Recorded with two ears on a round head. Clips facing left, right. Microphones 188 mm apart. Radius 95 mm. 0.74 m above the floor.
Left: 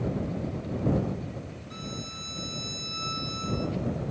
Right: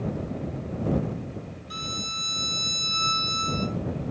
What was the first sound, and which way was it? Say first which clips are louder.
A violin: even; 85° right.